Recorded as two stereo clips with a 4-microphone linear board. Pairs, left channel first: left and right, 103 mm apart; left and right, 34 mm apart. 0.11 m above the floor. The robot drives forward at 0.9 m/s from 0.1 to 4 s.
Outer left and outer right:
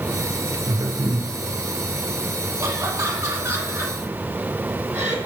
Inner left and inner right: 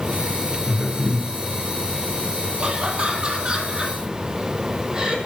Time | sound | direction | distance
0.6 | a man speaking | 40° right (ahead or behind) | 2.5 m
2.6 | laughter | 30° right (ahead or behind) | 2.5 m